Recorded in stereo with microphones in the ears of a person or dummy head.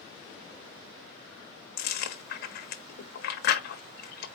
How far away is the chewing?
About 0.8 m.